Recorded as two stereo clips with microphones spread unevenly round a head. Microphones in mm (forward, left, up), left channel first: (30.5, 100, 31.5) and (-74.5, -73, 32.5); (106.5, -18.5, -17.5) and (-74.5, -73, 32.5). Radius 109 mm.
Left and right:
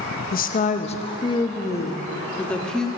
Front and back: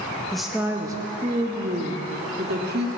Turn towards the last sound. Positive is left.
turn(degrees=145)